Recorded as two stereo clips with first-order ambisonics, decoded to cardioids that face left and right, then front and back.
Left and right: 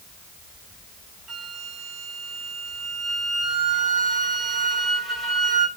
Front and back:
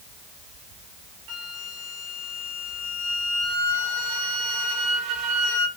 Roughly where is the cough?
No cough in this recording.